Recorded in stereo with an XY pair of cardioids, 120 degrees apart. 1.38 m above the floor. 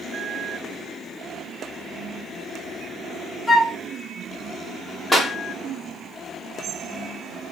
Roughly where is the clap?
Ahead.